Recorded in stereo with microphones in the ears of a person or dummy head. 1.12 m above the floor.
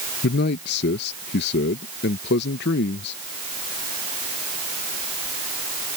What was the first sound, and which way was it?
A man speaking, 60° left (ahead or behind).